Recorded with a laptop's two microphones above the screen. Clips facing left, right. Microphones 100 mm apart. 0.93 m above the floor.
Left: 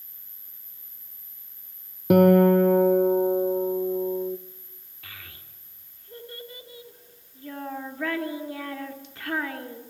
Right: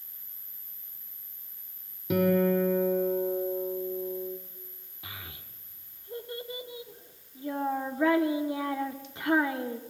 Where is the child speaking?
20° right (ahead or behind), 1.7 m.